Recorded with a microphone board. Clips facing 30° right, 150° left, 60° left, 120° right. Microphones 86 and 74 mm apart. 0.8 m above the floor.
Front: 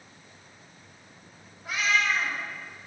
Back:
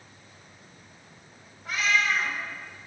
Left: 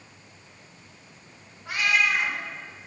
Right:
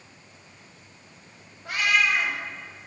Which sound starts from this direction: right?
A cat meowing, at 1.6 s.